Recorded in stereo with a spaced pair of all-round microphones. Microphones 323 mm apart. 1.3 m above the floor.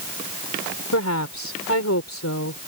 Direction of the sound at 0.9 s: 55° left (ahead or behind).